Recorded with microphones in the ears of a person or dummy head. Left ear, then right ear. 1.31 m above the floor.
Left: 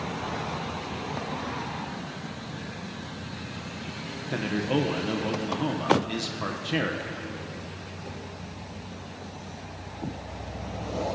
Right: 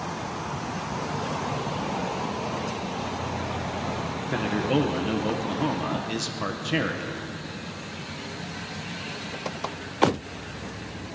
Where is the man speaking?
5° right (ahead or behind), 0.7 m.